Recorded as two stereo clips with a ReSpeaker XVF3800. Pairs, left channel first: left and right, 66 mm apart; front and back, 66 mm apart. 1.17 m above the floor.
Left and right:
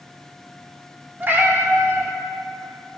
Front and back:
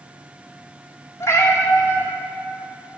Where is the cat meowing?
35° right, 0.9 m.